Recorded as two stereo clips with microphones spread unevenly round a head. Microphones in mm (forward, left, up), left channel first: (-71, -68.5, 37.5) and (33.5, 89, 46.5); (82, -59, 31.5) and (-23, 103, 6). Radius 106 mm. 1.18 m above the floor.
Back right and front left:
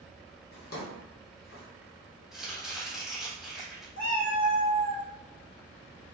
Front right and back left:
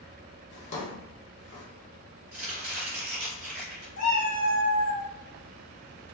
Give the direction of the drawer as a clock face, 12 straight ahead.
3 o'clock.